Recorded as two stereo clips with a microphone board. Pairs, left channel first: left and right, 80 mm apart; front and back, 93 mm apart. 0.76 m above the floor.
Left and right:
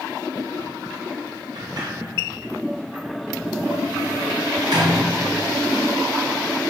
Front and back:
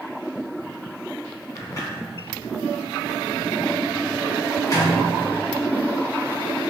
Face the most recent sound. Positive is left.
turn(degrees=-55)